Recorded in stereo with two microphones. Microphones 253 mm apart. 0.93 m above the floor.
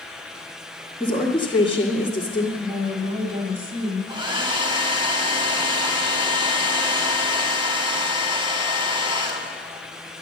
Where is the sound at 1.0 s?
10° left (ahead or behind), 1.6 m.